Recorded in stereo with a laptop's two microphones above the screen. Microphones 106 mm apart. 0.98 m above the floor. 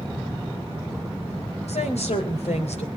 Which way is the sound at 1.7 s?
85° left.